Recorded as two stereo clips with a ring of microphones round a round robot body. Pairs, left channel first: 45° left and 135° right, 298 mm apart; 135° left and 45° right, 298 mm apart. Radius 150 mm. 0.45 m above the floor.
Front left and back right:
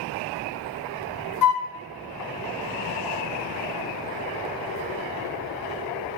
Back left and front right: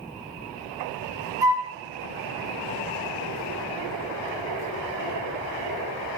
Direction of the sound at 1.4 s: 35° left.